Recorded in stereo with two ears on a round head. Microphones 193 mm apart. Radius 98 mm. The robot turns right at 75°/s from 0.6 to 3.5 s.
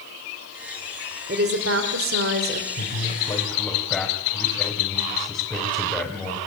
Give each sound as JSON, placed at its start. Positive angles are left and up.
{"t": 1.3, "sound": "a woman speaking", "azimuth_deg": -135, "distance_m": 2.5}
{"t": 2.8, "sound": "a man speaking", "azimuth_deg": 115, "distance_m": 3.5}